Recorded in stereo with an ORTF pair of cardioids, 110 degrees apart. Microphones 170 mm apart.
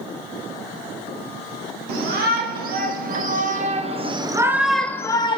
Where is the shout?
70° right, 2 m; by 5.4 s 30° left, 0.8 m.